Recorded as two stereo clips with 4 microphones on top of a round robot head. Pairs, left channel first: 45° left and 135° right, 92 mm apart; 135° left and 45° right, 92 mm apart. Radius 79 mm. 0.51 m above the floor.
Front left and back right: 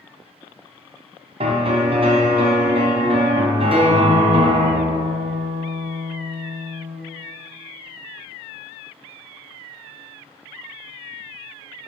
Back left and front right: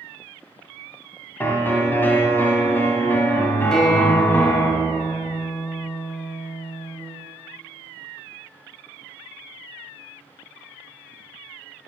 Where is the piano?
155° right, 1.6 m.